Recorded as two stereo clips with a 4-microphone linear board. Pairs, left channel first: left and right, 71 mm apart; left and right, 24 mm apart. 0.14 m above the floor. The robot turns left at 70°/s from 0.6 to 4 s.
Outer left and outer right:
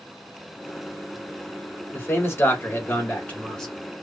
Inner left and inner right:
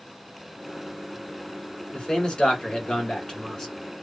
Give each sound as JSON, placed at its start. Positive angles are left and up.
{"t": 1.9, "sound": "a man speaking", "azimuth_deg": 130, "distance_m": 1.3}